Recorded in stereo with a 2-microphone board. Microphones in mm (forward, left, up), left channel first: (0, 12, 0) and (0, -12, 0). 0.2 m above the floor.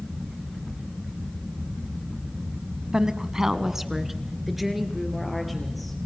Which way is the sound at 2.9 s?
30° right (ahead or behind).